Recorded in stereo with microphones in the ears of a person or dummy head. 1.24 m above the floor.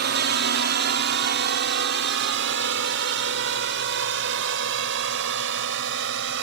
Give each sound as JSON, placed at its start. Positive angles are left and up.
{"t": 0.0, "sound": "a drone", "side_deg": -50}